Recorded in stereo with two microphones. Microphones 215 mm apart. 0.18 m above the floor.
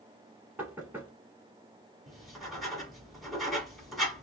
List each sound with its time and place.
0.6 s knocking: 10° right (ahead or behind), 1.2 m
2.1 s writing: centre (ahead or behind), 1.2 m